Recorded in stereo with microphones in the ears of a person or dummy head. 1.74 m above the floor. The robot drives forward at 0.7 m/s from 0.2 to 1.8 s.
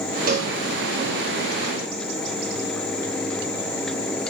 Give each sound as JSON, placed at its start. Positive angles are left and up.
{"t": 0.3, "sound": "a cowbell", "side_deg": -45, "distance_m": 1.2}